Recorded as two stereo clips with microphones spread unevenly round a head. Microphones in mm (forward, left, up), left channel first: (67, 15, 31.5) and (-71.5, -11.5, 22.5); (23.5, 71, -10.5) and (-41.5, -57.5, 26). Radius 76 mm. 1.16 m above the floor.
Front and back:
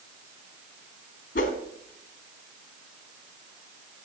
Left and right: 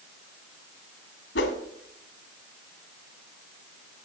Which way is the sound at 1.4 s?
45° left.